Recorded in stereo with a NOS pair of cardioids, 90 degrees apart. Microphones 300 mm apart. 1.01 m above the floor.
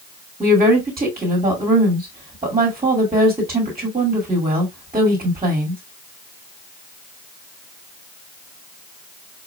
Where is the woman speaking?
20° right, 2.5 m.